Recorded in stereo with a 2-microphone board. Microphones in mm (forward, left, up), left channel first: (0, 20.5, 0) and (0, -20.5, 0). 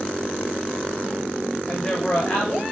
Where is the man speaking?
30° left (ahead or behind), 1.5 m.